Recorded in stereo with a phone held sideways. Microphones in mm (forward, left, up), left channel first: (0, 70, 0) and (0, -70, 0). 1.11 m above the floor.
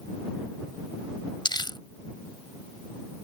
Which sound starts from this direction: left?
Crumpling, at 1.4 s.